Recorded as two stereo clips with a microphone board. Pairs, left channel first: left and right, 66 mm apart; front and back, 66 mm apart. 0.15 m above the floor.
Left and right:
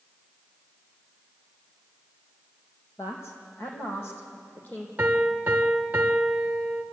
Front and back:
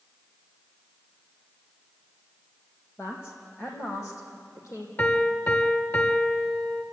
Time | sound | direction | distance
3.0 | a man speaking | 45° left | 6 m
5.0 | a piano | 30° right | 1.6 m